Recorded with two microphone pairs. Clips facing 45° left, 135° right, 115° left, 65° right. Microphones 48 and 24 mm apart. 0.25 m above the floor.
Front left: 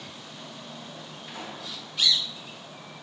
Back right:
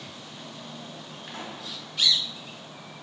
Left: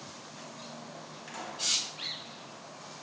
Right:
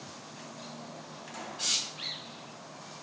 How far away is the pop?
About 4 m.